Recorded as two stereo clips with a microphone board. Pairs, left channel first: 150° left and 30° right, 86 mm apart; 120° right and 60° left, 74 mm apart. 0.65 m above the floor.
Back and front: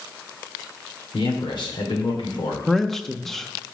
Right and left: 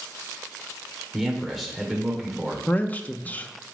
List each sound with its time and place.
1.1 s a man speaking: 150° left, 2 m
2.7 s a man speaking: 130° right, 0.5 m